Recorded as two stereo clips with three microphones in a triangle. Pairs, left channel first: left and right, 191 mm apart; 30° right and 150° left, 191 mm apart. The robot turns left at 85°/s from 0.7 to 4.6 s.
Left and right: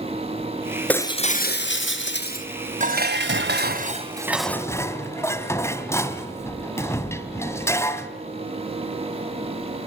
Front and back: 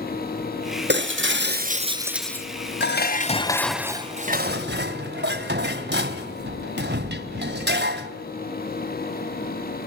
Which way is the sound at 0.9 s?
175° left.